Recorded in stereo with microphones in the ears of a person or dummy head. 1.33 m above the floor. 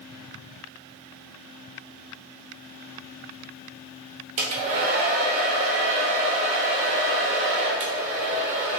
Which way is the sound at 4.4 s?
40° right (ahead or behind).